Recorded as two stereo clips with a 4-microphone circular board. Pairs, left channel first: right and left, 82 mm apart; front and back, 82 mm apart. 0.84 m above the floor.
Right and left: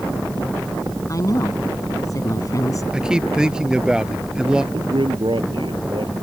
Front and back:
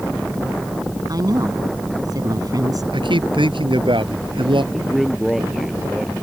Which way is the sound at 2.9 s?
170° left.